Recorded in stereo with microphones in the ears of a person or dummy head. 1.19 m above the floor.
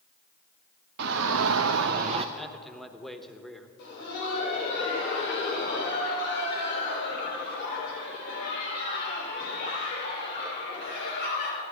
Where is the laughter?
65° left (ahead or behind), 5 m.